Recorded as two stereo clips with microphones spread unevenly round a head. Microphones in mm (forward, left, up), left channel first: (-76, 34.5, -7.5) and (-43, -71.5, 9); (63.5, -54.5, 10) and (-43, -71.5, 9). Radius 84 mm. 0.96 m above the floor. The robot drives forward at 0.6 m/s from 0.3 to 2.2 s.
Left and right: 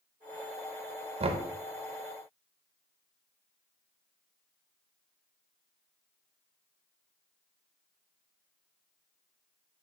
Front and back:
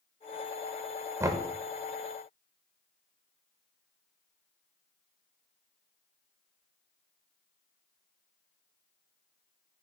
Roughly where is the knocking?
Right.